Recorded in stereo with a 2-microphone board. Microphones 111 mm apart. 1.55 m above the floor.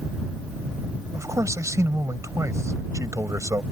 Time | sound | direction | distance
1.1 | a man speaking | 30° right (ahead or behind) | ?